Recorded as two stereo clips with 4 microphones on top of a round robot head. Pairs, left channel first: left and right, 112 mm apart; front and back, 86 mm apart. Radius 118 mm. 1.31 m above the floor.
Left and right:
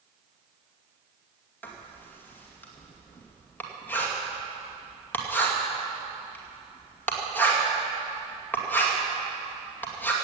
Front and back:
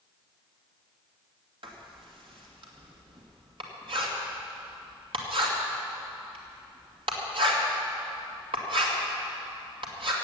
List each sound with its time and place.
1.6 s writing: 165° left, 2.5 m